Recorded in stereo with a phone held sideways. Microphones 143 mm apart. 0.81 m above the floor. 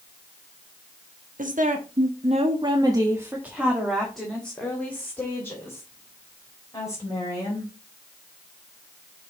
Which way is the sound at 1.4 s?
70° right (ahead or behind).